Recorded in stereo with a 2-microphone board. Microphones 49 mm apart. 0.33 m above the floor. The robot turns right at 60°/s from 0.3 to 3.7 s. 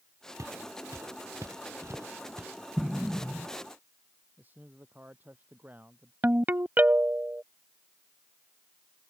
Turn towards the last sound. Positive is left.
turn(degrees=-40)  # may be behind; listen again after turning